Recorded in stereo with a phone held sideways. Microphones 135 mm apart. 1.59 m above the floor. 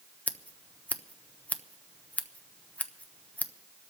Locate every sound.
0.3 s scissors: 10° left (ahead or behind), 0.7 m